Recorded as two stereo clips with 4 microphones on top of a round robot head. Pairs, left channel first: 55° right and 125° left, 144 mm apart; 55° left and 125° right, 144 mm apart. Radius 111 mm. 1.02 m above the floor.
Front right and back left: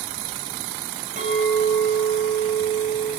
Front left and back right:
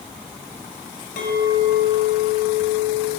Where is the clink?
80° left, 1.6 m.